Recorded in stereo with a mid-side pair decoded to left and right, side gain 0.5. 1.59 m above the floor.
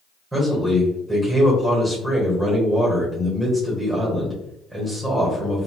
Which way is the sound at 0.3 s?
10° right.